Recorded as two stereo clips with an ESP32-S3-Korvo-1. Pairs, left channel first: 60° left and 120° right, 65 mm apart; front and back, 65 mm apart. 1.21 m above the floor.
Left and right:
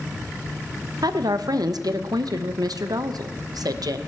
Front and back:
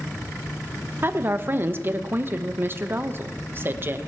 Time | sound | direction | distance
1.0 | a woman speaking | 125° right | 0.9 m